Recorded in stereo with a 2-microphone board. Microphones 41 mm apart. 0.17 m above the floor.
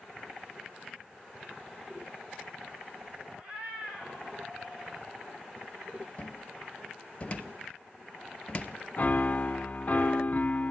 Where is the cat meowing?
25° right (ahead or behind), 3.5 m; by 5.1 s 10° right (ahead or behind), 5 m.